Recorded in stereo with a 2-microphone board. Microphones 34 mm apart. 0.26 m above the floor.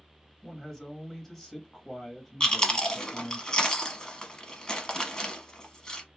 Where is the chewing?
25° left (ahead or behind), 0.6 m.